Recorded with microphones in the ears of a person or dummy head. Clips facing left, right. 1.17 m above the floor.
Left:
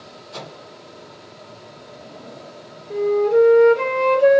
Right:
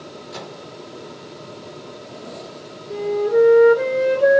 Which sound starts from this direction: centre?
A flute, at 2.9 s.